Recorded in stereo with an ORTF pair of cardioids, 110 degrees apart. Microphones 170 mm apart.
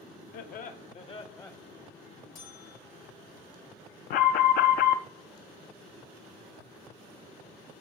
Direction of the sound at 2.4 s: 55° left.